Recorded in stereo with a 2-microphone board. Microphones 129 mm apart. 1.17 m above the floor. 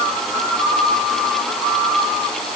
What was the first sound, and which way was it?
Only background noise.